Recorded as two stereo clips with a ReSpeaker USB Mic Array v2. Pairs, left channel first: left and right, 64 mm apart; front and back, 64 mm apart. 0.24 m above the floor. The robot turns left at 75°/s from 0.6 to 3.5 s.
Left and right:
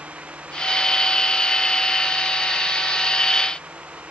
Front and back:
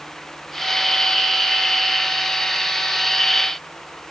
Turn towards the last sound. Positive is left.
No sound to turn to.